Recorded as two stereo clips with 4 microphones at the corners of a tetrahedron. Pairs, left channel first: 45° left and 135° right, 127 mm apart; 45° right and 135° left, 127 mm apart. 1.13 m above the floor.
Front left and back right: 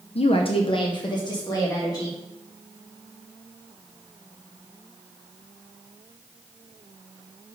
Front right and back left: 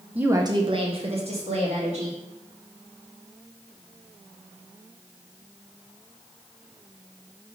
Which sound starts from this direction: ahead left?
A woman speaking, at 0.1 s.